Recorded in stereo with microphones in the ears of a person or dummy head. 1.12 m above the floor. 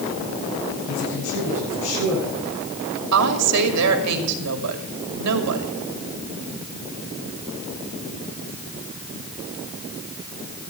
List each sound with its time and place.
0.9 s a man speaking: 85° left, 7.5 m
3.1 s a woman speaking: 80° right, 2.5 m